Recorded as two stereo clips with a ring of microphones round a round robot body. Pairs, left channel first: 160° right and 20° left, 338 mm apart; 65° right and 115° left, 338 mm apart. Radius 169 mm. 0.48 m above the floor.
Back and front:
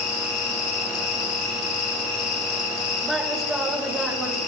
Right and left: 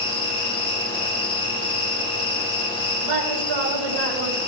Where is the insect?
140° right, 4 m.